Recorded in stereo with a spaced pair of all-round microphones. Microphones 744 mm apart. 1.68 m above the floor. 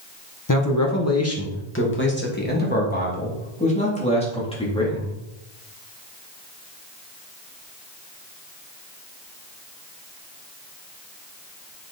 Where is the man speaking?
25° left (ahead or behind), 1.7 m; by 5.2 s 5° left (ahead or behind), 4 m.